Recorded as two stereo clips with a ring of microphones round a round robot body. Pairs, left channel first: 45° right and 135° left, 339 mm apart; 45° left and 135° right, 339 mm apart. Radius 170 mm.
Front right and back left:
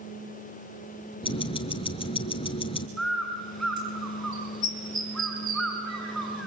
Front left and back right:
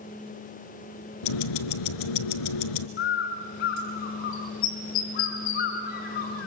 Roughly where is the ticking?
Ahead left.